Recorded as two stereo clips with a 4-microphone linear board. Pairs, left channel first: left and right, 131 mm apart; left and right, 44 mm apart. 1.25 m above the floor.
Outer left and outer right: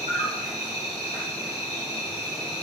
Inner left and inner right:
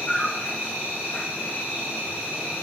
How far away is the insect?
About 1.2 m.